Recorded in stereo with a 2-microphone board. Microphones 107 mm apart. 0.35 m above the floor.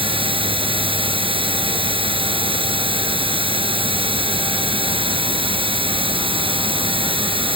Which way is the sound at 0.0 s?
60° right (ahead or behind).